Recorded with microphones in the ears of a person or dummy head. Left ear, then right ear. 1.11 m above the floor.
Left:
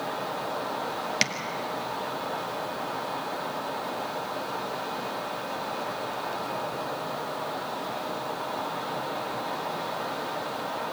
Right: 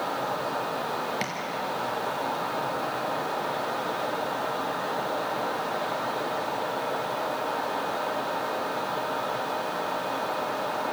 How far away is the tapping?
About 1.6 m.